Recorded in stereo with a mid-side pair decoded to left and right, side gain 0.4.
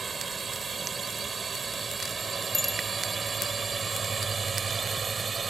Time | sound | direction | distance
0.0 | a drone | 45° right | ?
2.5 | a bicycle bell | 10° left | ?